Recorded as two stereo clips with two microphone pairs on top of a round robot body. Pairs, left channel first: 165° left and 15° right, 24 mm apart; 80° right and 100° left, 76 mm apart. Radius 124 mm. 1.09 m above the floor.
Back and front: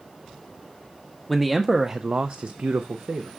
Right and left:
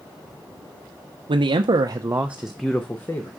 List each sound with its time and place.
1.3 s a man speaking: 80° left, 0.6 m; by 3.3 s 20° right, 0.8 m